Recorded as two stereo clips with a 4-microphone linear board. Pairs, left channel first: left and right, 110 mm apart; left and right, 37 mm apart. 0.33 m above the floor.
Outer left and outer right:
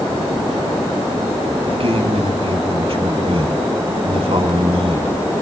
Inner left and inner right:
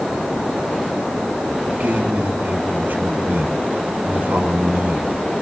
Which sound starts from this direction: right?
A man speaking, at 1.7 s.